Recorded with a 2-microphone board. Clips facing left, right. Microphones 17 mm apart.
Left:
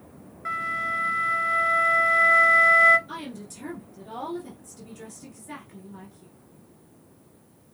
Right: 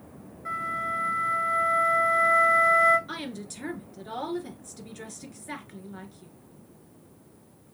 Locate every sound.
0.5 s a flute: 35° left (ahead or behind), 0.9 m
3.1 s a woman speaking: 30° right (ahead or behind), 1.7 m